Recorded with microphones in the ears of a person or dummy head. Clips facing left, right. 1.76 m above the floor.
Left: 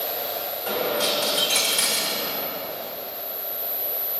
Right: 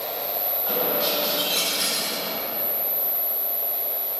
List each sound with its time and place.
0.7 s a dropped coin: 35° left (ahead or behind), 3 m